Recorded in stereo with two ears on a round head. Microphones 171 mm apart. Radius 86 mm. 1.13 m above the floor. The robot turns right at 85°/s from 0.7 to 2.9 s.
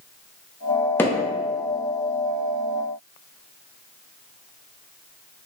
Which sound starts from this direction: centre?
Hammering, at 1.0 s.